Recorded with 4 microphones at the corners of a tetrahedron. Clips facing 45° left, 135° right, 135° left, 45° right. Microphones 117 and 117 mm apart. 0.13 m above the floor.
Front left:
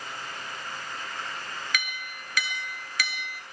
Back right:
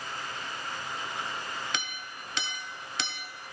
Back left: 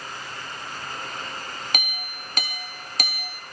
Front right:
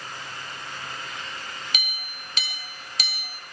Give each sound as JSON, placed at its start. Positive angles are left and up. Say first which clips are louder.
{"t": 1.7, "sound": "a clink", "louder": "front left 2 dB, back left 5 dB", "azimuth_deg": 165, "distance_m": 1.5}